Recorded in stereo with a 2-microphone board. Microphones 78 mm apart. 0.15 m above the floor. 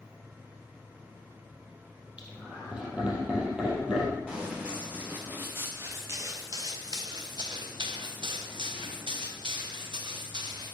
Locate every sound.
2.2 s laughter: 15° right (ahead or behind), 3.5 m
4.3 s running footsteps: 15° right (ahead or behind), 2.5 m; by 10.8 s 65° right (ahead or behind), 2.5 m